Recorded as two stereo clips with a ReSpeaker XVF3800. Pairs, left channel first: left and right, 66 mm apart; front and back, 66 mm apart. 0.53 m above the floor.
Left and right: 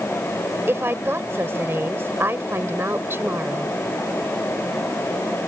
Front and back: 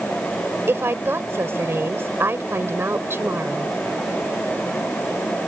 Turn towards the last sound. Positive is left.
turn(degrees=-135)